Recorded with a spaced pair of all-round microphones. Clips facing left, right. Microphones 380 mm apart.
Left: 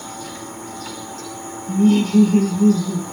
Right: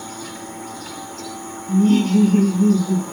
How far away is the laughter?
About 1.4 m.